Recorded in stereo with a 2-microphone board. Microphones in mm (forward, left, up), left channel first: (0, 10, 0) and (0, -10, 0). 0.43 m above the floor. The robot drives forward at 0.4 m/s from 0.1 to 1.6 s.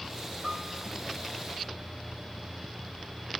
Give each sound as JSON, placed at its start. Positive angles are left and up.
{"t": 0.4, "sound": "a piano", "side_deg": -50, "distance_m": 1.9}